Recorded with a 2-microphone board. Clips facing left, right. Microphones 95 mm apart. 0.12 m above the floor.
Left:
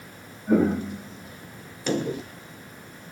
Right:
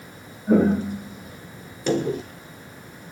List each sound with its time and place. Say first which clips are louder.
0.5 s footsteps: right 3 dB; 35° right (ahead or behind), 4.5 m